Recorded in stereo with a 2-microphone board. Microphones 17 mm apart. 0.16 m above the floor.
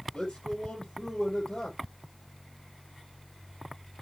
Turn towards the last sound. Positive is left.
turn(degrees=75)  # may be behind; listen again after turning